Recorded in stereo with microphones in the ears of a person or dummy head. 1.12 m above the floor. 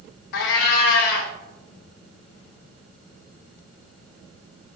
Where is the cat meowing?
65° left (ahead or behind), 0.5 m.